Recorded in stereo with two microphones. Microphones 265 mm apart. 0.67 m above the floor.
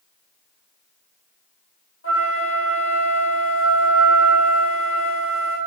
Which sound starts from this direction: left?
A flute, at 2.0 s.